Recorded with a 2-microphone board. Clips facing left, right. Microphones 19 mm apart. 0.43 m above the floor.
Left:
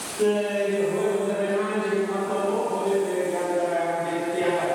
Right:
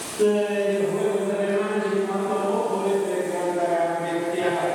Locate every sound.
0.2 s laughter: centre (ahead or behind), 1.9 m; by 4.7 s 60° right (ahead or behind), 2.5 m